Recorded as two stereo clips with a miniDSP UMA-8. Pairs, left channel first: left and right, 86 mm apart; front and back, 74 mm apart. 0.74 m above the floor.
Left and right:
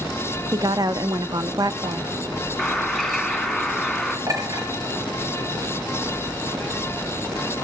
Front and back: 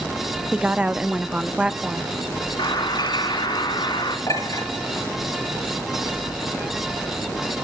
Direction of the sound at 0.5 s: 105° right.